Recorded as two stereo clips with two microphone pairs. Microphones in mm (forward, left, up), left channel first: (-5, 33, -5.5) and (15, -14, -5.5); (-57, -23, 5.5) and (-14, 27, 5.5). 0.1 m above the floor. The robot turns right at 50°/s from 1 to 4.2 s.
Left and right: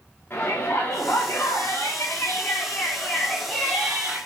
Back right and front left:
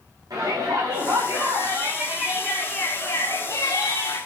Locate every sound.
0.3 s a shout: 65° left, 6.5 m; by 4.2 s 135° right, 6.5 m